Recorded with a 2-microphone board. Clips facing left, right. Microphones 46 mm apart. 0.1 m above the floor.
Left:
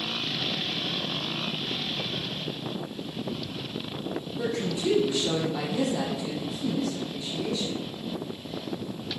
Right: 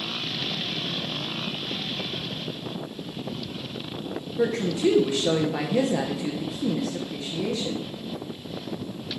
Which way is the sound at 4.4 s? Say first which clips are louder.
Right 6 dB; 40° right (ahead or behind).